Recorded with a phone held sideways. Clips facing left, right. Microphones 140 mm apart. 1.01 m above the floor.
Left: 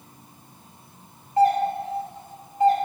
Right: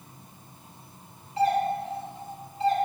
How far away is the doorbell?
About 1.8 m.